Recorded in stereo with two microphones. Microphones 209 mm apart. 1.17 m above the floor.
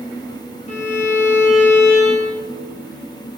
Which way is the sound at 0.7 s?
35° left (ahead or behind).